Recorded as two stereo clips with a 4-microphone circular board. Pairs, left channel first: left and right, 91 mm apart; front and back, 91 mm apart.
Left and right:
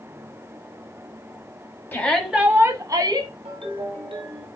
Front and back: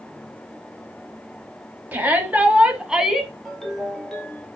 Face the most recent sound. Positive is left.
turn(degrees=-85)